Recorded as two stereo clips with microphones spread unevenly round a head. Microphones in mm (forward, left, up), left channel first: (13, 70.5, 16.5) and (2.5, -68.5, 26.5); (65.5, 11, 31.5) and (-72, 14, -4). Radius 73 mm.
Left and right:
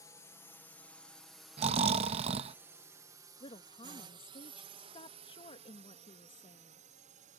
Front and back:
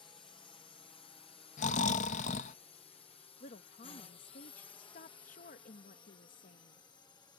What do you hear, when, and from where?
0.0 s a drone: 45° left; by 7.4 s 70° right
1.6 s snoring: 45° right
3.4 s a woman speaking: 35° left